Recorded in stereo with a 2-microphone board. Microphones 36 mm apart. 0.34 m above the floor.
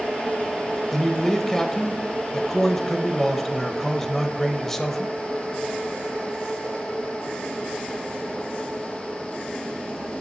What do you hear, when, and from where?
0.9 s a man speaking: 10° left (ahead or behind), 1.3 m